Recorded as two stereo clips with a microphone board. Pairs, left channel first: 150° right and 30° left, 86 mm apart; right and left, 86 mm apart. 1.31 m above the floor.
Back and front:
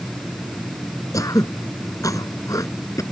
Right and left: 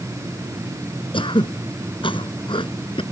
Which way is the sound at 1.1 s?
100° right.